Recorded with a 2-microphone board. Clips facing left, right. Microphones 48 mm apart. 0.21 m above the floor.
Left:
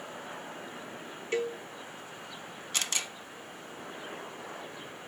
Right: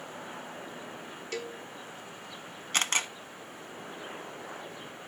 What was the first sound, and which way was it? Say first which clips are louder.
A cowbell: left 7 dB; 25° left (ahead or behind).